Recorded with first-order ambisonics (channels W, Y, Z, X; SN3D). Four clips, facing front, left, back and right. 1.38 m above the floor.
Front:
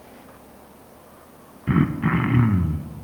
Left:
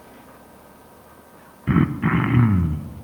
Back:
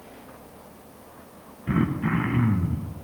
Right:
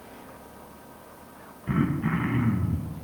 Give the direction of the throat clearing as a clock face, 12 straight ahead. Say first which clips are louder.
Left 6 dB, front 3 dB; 10 o'clock.